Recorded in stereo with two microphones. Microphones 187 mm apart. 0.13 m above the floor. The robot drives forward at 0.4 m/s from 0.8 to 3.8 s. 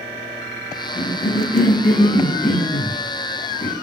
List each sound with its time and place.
0.9 s a cough: 35° left (ahead or behind), 1.9 m; by 3.7 s 30° left (ahead or behind), 2.5 m